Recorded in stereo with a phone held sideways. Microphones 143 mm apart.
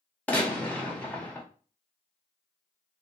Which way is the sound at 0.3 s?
10° left (ahead or behind).